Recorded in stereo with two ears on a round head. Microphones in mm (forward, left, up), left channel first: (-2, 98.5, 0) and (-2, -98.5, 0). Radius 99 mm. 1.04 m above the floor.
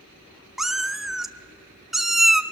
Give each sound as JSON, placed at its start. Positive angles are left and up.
{"t": 0.6, "sound": "a cat meowing", "side_deg": 0, "distance_m": 0.5}